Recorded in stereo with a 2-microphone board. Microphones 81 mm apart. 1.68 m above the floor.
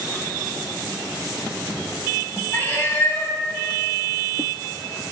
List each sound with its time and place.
2.5 s a cat meowing: 20° left (ahead or behind), 1.0 m